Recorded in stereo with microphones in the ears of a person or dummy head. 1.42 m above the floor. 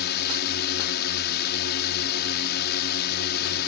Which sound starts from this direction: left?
A drone, at 0.0 s.